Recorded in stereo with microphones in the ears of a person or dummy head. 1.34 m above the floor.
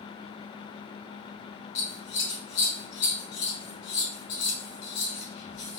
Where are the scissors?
75° left (ahead or behind), 1.5 m.